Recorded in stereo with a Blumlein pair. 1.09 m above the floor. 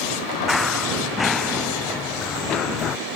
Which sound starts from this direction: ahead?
Running footsteps, at 0.5 s.